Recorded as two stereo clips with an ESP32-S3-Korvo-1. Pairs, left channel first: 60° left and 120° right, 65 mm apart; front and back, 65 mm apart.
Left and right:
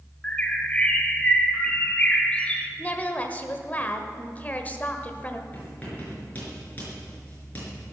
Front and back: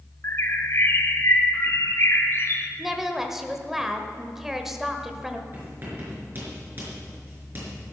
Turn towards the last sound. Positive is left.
turn(degrees=125)